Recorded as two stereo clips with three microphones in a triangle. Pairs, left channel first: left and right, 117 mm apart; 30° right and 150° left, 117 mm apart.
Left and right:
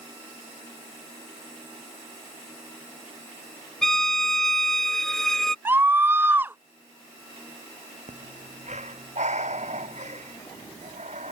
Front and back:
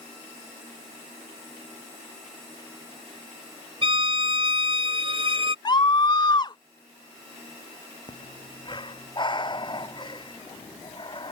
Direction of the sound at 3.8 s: 175° left.